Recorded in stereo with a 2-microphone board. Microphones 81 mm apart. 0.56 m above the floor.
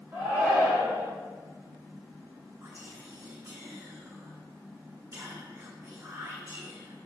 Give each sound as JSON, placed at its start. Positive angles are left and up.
{"t": 0.1, "sound": "a shout", "side_deg": -25, "distance_m": 2.5}
{"t": 2.6, "sound": "whispering", "side_deg": -40, "distance_m": 0.9}